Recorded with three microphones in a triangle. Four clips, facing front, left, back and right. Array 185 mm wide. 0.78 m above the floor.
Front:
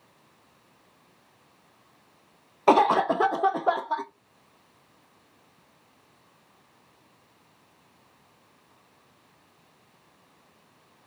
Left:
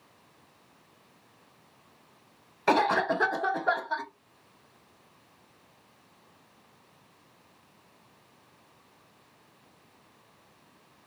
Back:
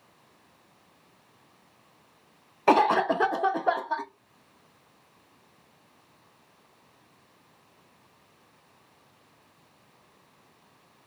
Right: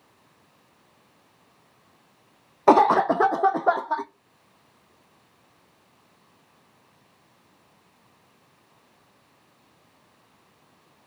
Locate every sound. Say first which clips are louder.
2.7 s a cough: right 8 dB, front 2 dB; 90° right, 0.5 m